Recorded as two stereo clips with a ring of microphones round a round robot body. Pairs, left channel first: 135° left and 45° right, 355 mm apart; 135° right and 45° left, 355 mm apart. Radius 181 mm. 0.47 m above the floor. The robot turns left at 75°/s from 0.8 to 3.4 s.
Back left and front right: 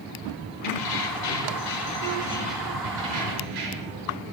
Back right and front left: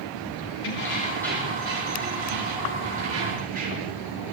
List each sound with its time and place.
0.6 s keys jangling: 175° left, 6.5 m; by 4.0 s 20° right, 6.5 m